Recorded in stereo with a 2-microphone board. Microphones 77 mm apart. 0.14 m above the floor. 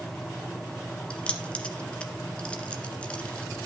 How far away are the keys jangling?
About 1.4 m.